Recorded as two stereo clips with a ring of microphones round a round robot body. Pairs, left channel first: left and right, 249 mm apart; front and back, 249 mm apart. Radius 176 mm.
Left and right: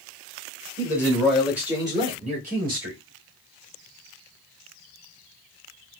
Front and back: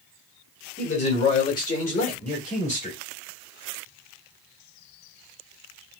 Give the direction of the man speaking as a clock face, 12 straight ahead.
11 o'clock.